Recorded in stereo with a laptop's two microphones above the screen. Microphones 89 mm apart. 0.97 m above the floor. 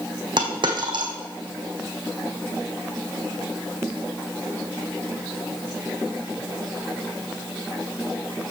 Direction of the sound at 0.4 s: 60° right (ahead or behind).